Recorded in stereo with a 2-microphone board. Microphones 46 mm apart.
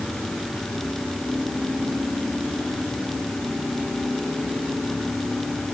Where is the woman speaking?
No woman speaking in this recording.